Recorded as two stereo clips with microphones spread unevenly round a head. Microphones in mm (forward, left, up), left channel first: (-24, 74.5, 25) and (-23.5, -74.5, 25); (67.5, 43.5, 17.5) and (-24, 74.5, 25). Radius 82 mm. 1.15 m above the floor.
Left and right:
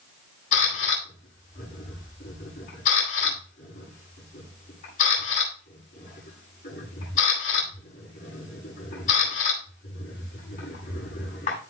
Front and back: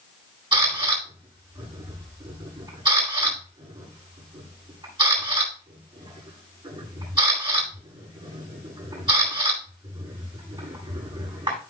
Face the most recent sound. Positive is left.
turn(degrees=125)